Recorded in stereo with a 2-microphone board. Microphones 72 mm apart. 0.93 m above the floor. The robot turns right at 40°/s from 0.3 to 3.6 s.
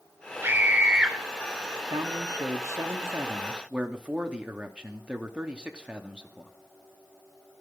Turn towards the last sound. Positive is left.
turn(degrees=-15)